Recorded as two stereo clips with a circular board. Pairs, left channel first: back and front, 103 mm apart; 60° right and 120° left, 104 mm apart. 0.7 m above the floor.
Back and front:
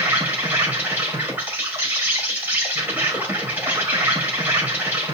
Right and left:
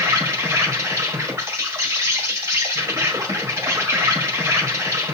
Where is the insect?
60° left, 1.3 m.